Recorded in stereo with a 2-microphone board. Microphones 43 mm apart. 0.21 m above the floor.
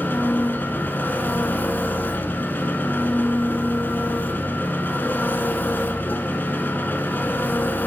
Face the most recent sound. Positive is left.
turn(degrees=50)  # may be behind; listen again after turning